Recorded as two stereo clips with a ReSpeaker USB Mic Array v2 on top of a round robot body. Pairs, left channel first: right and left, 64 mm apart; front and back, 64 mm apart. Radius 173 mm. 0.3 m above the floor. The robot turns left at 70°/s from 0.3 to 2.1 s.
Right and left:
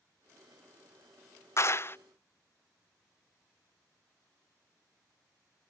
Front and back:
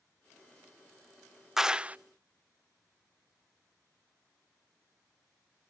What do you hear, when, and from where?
1.6 s a clap: 100° right; by 2.0 s 125° right